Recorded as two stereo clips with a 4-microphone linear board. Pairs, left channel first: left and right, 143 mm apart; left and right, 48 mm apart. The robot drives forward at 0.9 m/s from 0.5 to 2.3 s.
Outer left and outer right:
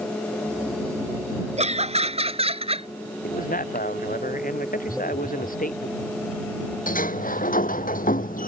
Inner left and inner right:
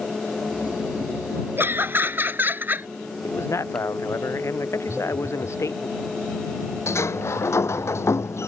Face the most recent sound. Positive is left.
turn(degrees=70)  # may be behind; listen again after turning